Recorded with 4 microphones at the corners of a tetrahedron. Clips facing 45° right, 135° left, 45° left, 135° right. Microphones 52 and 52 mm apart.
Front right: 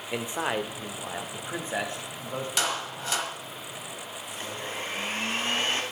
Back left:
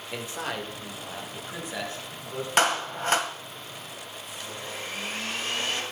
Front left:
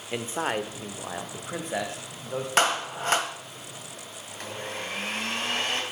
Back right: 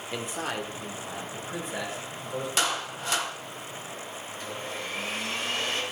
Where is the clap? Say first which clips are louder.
Back left 9 dB, front left 7 dB; 90° left, 1.5 m.